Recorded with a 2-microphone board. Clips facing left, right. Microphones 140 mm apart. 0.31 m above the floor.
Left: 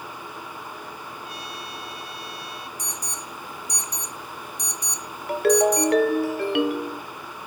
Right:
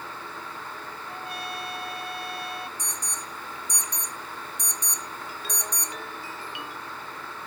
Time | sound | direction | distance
1.1 | a trumpet | 55° right (ahead or behind) | ?
2.8 | an alarm | 35° left (ahead or behind) | ?
5.3 | a ringtone | 70° left (ahead or behind) | ?